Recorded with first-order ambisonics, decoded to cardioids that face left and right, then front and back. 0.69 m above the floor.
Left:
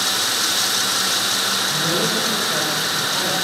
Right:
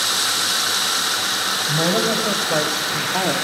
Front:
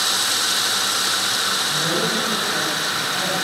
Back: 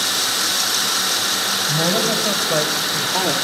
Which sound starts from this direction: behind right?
A woman speaking, at 1.7 s.